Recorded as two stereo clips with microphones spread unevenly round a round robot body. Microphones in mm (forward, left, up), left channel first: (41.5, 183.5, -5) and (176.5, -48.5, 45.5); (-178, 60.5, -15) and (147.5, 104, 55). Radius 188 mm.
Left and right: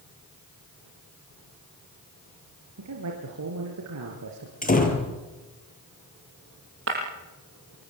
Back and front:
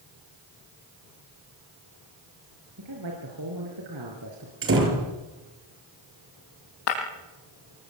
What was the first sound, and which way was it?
A man speaking, 40° right.